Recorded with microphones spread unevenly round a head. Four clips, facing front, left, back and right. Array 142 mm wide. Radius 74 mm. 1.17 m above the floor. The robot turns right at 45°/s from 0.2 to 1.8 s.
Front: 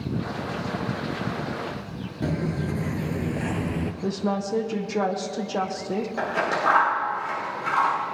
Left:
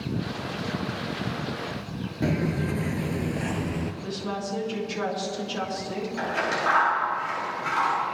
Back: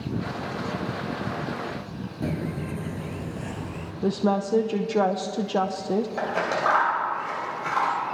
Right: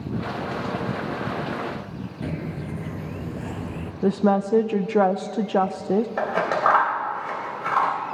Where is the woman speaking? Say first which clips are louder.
Right 11 dB, back 5 dB; 100° right, 0.8 m.